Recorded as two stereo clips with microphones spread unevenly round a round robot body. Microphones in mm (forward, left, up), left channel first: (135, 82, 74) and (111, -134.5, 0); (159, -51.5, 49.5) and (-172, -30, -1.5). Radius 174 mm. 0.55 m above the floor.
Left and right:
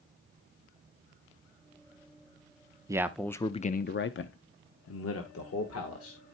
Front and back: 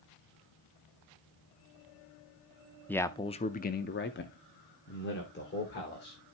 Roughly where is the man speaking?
Right.